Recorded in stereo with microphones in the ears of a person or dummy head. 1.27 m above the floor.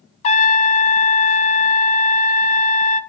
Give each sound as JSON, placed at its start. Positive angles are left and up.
{"t": 0.2, "sound": "a trumpet", "side_deg": 45, "distance_m": 1.0}